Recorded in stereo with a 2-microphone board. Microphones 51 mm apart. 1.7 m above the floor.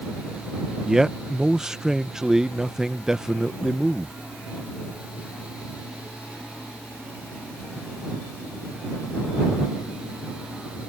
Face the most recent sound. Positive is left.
turn(degrees=-10)  # may be behind; listen again after turning